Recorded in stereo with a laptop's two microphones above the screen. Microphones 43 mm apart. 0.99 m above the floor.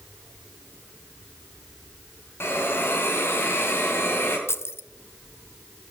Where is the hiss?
65° left (ahead or behind), 2 m.